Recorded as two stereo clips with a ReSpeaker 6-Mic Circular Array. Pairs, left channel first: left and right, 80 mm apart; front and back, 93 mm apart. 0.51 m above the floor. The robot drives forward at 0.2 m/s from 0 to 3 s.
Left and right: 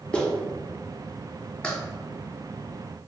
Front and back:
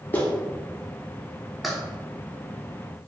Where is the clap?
30° left, 0.9 m; by 3.1 s 140° left, 0.9 m.